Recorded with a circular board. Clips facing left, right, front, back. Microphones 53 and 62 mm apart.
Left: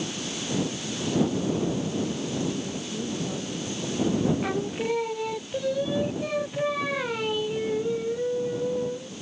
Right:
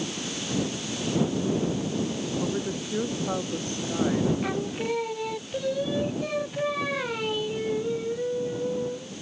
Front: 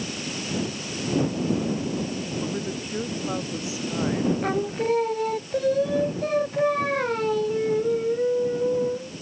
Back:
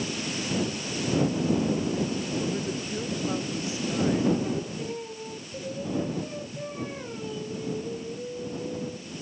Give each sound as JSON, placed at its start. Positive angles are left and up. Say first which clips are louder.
{"t": 2.4, "sound": "a woman speaking", "louder": "right 1 dB, even", "azimuth_deg": -70}
{"t": 4.4, "sound": "singing", "louder": "left 1 dB, front 7 dB", "azimuth_deg": 0}